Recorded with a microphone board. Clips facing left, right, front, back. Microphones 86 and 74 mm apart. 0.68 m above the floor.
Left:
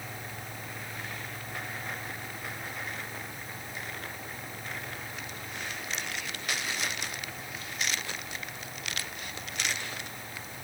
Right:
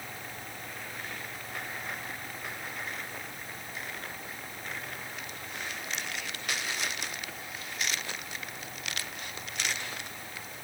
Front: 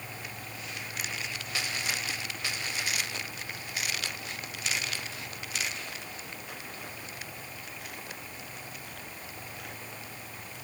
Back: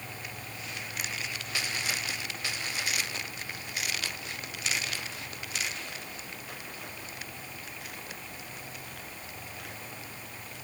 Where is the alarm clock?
I don't hear an alarm clock.